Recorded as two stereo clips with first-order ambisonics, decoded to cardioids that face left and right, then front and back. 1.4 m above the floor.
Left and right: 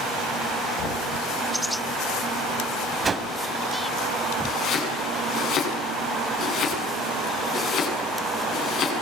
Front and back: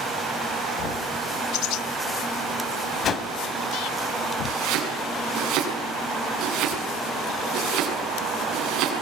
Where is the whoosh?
30° right, 1.4 m.